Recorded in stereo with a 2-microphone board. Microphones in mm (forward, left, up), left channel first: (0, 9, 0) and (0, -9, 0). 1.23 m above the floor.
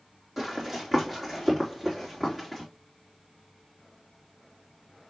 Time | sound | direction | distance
0.4 | running footsteps | 15° right (ahead or behind) | 3 m